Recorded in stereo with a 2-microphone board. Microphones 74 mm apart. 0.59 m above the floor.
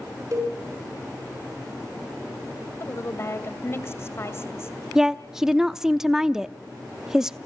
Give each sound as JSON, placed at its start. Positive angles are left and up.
{"t": 0.3, "sound": "a cowbell", "side_deg": -45, "distance_m": 5.5}
{"t": 2.8, "sound": "a woman speaking", "side_deg": 35, "distance_m": 2.5}
{"t": 5.0, "sound": "a woman speaking", "side_deg": -10, "distance_m": 0.6}